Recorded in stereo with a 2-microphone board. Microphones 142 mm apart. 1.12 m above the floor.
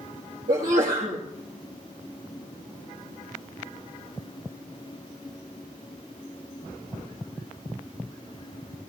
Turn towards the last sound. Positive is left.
turn(degrees=-75)  # may be behind; listen again after turning